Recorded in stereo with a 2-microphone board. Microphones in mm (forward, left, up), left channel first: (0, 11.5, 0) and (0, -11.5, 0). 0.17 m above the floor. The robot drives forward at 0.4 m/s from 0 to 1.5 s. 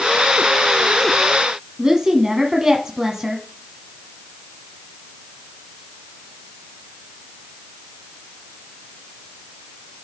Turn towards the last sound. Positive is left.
turn(degrees=-30)  # may be behind; listen again after turning